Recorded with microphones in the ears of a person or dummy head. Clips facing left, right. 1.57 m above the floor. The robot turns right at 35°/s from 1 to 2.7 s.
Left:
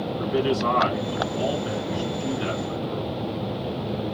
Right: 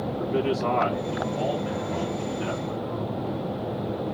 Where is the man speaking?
15° left, 2 m; by 3.2 s 75° left, 2 m.